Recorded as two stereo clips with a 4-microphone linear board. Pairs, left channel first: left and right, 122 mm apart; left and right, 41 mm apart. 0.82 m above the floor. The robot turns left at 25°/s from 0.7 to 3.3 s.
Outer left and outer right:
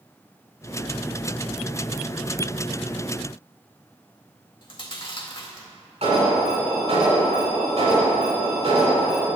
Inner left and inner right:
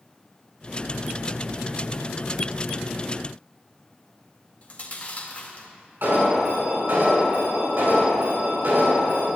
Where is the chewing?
40° left (ahead or behind), 1.8 m.